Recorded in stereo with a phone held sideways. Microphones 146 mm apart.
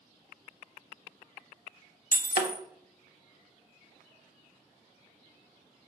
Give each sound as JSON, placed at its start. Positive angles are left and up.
{"t": 2.1, "sound": "breaking glass", "side_deg": 75, "distance_m": 1.3}